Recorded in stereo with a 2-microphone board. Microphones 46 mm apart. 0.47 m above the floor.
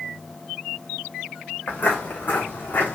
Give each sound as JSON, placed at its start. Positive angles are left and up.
{"t": 1.7, "sound": "footsteps", "side_deg": 40, "distance_m": 2.0}